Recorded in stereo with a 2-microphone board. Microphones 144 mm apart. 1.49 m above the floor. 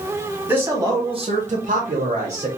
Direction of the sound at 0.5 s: 15° right (ahead or behind).